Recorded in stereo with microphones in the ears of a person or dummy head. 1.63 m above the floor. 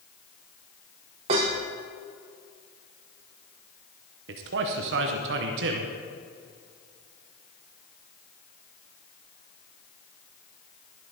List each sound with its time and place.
1.3 s dishes clattering: 25° right (ahead or behind), 0.8 m
4.3 s a man speaking: 65° right (ahead or behind), 1.0 m